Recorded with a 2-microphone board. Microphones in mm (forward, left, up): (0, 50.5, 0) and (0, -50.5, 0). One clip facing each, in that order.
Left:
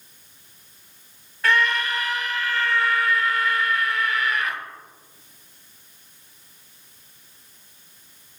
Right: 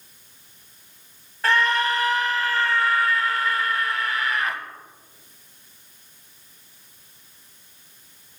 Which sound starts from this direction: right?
A scream, at 1.4 s.